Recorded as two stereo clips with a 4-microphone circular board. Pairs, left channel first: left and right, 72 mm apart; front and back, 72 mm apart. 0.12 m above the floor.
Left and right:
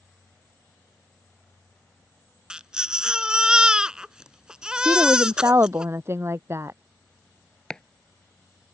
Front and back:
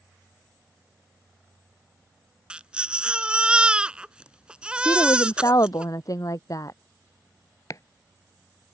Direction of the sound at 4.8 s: 35° right.